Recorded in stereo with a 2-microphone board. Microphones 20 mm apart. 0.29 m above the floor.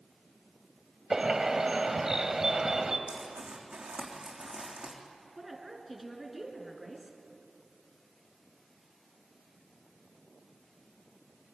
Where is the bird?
25° right (ahead or behind), 1.4 m.